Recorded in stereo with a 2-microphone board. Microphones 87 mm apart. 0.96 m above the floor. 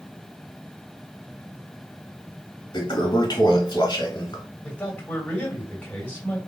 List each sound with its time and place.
2.7 s a toilet flushing: 55° left (ahead or behind), 1.8 m
4.6 s a man speaking: 15° left (ahead or behind), 2.5 m